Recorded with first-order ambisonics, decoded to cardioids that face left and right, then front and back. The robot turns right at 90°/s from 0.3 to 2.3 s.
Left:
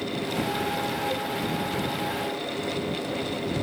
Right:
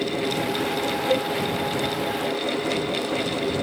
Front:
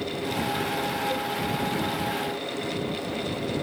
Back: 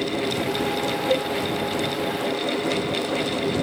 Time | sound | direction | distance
1.1 | a cowbell | 135° right | ?